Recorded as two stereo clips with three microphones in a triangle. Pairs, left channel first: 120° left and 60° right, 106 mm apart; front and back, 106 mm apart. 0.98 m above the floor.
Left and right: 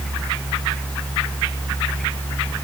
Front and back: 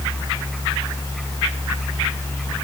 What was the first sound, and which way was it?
Only background noise.